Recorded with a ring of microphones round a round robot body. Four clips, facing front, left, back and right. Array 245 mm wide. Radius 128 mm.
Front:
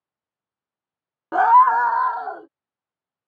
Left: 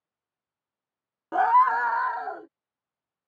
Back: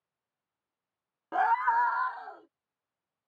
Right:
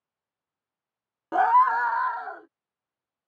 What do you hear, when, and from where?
1.3 s a scream: 15° right; by 2.5 s 30° left